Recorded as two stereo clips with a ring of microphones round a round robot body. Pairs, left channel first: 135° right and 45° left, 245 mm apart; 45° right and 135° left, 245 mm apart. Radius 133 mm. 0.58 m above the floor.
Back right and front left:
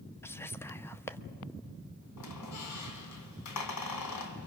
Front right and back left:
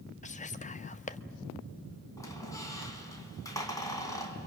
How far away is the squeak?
About 1.9 m.